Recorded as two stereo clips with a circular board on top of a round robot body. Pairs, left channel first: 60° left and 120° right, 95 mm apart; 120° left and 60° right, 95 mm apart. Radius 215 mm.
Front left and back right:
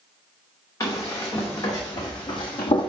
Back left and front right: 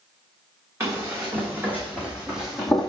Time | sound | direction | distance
0.8 | running footsteps | 5° left | 2.5 m